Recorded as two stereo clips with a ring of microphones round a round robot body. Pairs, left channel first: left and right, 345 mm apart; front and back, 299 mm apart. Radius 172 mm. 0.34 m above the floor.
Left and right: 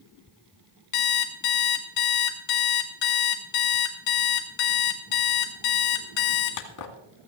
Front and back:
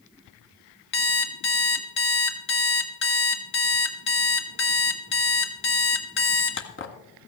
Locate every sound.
0.9 s an alarm clock: 50° left, 1.7 m